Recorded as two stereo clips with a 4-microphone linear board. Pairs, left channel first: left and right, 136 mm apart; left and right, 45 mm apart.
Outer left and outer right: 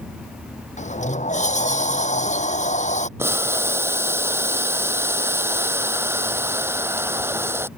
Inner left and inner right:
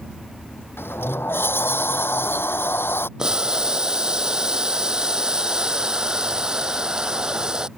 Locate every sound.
0.8 s a sliding door: 60° left (ahead or behind)
3.2 s boiling: 15° right (ahead or behind)